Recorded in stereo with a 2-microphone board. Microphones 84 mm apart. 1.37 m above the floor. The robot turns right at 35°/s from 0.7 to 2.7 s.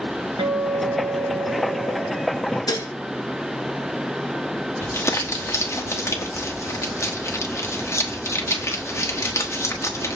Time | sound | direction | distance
0.4 | a guitar | 90° right | 1.2 m
2.7 | dishes clattering | 50° left (ahead or behind) | 0.9 m
4.8 | crumpling | 35° left (ahead or behind) | 1.2 m